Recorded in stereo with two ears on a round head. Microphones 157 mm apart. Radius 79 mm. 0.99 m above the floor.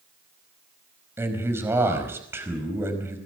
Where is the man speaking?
15° right (ahead or behind), 5 m.